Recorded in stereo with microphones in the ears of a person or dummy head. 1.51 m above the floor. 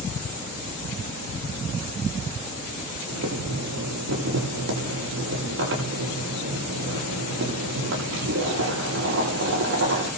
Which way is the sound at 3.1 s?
65° right (ahead or behind).